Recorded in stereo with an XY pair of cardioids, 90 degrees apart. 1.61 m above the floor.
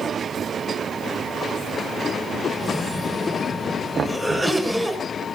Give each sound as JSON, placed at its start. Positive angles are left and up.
{"t": 2.6, "sound": "a cough", "azimuth_deg": 10, "distance_m": 8.0}
{"t": 4.0, "sound": "knocking", "azimuth_deg": -45, "distance_m": 0.9}